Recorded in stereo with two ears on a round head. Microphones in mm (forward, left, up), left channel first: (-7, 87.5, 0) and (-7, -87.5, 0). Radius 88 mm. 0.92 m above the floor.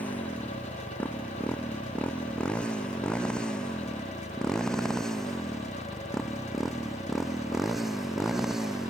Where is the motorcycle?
10° left (ahead or behind); by 8.9 s 5° right (ahead or behind).